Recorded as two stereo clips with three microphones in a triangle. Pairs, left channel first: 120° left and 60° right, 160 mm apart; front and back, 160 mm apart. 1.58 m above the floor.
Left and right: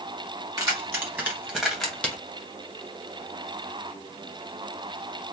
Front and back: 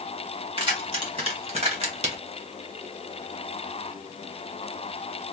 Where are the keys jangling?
130° right, 1.7 m; by 2.2 s 165° right, 1.1 m.